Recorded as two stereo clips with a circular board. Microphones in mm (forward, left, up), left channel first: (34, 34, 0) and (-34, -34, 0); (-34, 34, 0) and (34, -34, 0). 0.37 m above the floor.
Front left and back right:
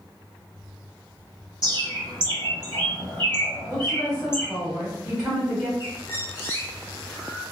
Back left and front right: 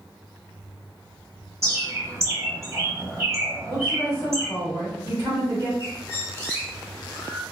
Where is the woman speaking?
60° right, 1.2 m.